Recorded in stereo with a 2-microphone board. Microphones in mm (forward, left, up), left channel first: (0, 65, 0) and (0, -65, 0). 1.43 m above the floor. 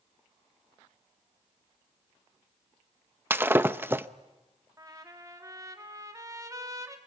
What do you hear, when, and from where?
3.3 s breaking glass: 15° right (ahead or behind), 0.7 m
4.8 s a trumpet: 25° right (ahead or behind), 2 m